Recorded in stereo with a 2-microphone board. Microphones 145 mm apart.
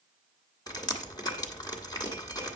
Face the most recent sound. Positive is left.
turn(degrees=25)  # may be behind; listen again after turning